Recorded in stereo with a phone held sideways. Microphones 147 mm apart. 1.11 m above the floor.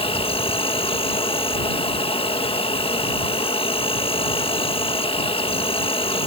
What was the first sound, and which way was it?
An insect, 40° left (ahead or behind).